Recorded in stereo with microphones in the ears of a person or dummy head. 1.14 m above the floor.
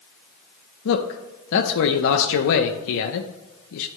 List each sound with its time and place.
0.8 s a man speaking: 65° left (ahead or behind), 0.6 m